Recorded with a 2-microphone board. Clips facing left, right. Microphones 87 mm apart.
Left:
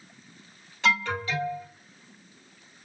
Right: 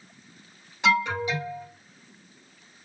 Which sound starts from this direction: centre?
An alarm, at 0.8 s.